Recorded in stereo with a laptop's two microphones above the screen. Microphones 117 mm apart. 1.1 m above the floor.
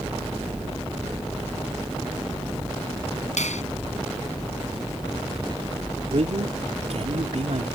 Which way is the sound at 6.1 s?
65° right (ahead or behind).